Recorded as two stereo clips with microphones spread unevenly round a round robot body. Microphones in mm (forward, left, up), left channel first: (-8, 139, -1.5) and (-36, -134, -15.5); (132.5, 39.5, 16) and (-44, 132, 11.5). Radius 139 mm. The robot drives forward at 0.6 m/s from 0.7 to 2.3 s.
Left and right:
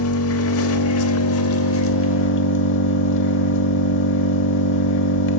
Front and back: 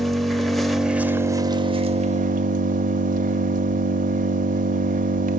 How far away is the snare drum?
I don't hear a snare drum.